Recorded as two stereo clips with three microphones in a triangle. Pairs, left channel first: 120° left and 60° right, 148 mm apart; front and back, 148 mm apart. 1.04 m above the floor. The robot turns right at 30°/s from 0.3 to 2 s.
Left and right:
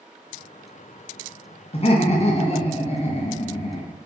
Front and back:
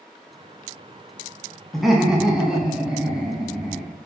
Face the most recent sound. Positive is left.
turn(degrees=95)